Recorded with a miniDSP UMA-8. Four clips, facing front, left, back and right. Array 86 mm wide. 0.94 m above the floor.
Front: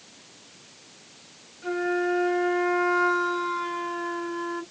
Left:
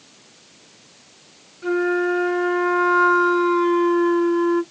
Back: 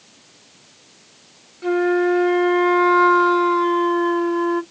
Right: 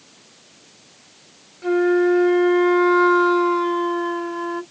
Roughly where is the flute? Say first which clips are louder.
Right 3 dB, back 8 dB; behind right.